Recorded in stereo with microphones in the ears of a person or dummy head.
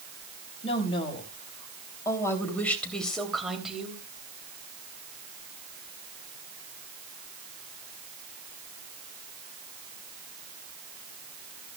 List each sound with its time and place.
0.6 s a woman speaking: 40° left (ahead or behind), 3.5 m; by 4.0 s centre (ahead or behind), 3 m